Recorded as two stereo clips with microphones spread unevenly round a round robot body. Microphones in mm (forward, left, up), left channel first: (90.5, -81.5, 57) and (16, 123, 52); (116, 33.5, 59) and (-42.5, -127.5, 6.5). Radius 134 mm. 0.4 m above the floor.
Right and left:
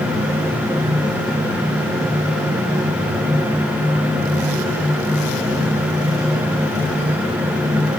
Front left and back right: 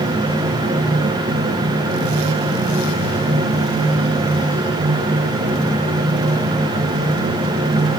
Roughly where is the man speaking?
No man speaking in this recording.